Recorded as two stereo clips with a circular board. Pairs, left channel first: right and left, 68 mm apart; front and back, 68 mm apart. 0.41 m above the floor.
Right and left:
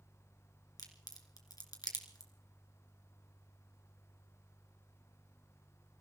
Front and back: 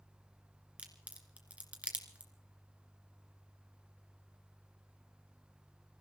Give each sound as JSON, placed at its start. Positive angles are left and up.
{"t": 0.8, "sound": "a crack", "azimuth_deg": -110, "distance_m": 2.5}